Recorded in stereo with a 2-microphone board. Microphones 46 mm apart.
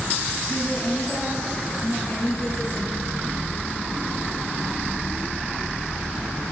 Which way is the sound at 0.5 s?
45° left (ahead or behind).